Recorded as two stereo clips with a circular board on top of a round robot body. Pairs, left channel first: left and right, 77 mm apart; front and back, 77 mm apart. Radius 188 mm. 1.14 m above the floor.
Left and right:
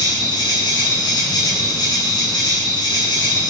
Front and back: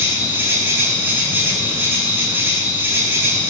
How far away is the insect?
About 7.5 m.